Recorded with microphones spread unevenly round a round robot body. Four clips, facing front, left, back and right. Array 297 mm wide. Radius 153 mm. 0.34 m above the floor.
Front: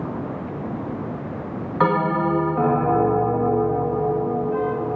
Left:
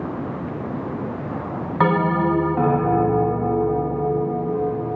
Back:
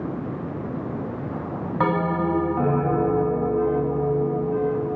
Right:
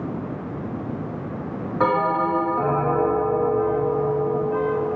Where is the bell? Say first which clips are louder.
Left 1 dB, front 3 dB; 100° left, 2 m.